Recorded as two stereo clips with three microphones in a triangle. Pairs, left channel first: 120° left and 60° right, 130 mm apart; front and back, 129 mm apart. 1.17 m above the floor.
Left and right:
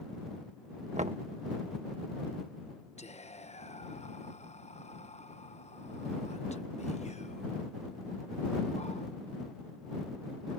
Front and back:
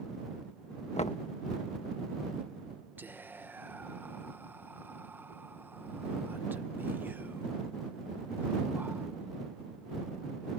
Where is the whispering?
110° left.